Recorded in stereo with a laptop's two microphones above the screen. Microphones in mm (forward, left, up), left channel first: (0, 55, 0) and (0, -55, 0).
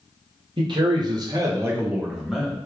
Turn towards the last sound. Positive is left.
turn(degrees=0)  # may be behind; listen again after turning